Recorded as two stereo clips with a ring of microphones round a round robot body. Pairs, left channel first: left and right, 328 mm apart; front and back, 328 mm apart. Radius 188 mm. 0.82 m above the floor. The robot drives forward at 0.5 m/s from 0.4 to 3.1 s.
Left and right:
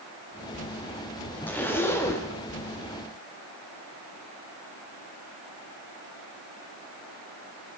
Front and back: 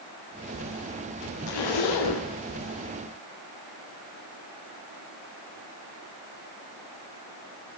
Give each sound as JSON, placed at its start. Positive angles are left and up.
{"t": 1.5, "sound": "a zipper", "azimuth_deg": 5, "distance_m": 1.1}